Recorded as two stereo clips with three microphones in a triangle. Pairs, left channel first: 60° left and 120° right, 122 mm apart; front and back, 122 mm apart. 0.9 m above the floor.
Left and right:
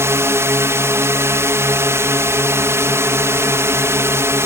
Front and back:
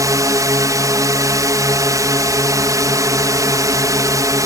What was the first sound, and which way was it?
A drone, 160° right.